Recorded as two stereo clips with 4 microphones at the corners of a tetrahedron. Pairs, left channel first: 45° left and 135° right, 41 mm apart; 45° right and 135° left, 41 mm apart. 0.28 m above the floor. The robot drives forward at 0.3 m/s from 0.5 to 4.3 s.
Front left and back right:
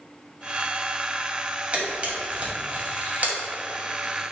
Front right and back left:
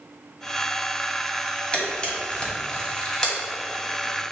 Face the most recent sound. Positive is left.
turn(degrees=-120)